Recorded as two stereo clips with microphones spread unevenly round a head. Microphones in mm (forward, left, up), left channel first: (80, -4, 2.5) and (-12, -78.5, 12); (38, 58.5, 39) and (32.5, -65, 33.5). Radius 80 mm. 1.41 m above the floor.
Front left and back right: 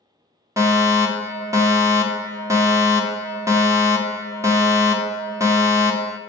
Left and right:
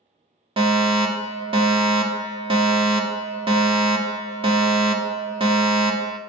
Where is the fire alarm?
80° right, 0.9 m.